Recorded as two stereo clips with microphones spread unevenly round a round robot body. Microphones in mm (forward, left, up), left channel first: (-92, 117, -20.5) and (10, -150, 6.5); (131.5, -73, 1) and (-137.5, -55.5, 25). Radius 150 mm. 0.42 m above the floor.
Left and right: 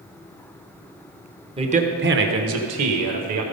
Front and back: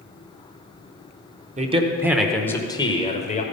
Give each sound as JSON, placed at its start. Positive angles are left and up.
{"t": 1.6, "sound": "a man speaking", "azimuth_deg": -135, "distance_m": 0.9}